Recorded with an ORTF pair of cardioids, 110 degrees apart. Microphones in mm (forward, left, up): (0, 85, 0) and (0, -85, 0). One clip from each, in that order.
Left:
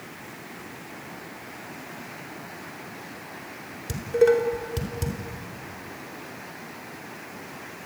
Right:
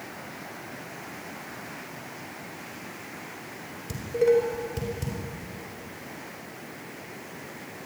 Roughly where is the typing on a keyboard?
No typing on a keyboard in this recording.